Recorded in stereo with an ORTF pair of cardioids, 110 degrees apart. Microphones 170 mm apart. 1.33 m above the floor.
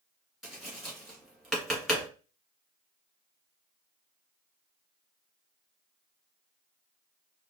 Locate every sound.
0.4 s tapping: straight ahead, 2 m